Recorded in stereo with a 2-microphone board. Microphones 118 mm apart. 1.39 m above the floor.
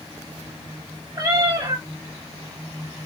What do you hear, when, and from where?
1.1 s a cat meowing: 35° right (ahead or behind), 2.5 m